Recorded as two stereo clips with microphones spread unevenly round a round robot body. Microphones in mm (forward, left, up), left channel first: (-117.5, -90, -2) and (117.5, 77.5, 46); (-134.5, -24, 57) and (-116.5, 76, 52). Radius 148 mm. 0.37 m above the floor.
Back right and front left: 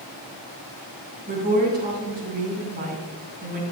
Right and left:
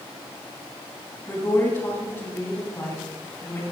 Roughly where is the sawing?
No sawing in this recording.